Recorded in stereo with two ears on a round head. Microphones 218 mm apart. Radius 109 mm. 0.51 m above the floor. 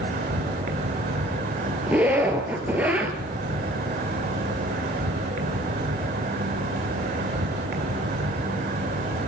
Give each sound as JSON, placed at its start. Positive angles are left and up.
{"t": 0.0, "sound": "an insect", "side_deg": -40, "distance_m": 2.0}
{"t": 1.9, "sound": "a zipper", "side_deg": -5, "distance_m": 3.0}